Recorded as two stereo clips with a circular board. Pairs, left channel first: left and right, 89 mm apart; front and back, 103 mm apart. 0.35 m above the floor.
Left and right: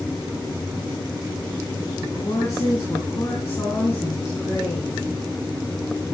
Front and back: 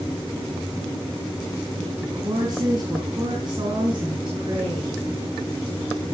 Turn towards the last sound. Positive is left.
turn(degrees=150)